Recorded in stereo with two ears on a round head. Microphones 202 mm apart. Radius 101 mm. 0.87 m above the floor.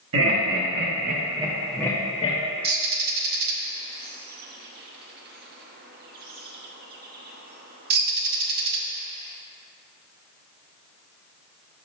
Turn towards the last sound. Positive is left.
turn(degrees=-45)  # may be behind; listen again after turning